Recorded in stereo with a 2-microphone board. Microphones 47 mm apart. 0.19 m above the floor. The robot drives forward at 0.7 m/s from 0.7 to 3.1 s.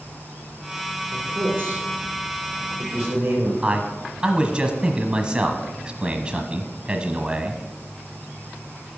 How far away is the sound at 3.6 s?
About 1.2 m.